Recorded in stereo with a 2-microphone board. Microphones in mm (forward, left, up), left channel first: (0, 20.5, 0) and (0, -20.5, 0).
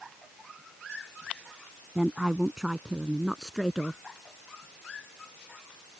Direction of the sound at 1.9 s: 20° right (ahead or behind).